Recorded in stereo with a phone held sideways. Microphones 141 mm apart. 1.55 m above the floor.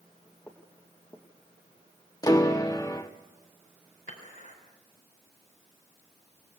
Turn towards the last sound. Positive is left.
turn(degrees=85)